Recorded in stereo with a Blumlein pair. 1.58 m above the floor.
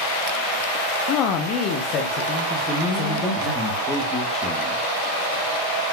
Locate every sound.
1.1 s a man speaking: 40° left, 0.6 m; by 3.5 s 35° left, 2 m
2.5 s a man speaking: 25° left, 1.8 m